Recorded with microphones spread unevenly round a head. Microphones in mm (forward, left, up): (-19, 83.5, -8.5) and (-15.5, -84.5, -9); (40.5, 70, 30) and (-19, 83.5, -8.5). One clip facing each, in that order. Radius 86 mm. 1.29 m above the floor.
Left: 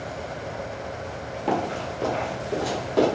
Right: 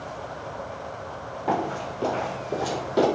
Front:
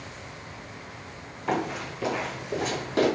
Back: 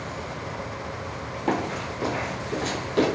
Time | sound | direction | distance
1.5 | running footsteps | 125° left | 1.5 m